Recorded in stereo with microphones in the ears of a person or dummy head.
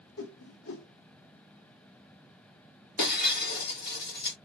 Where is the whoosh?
65° left (ahead or behind), 1.1 m.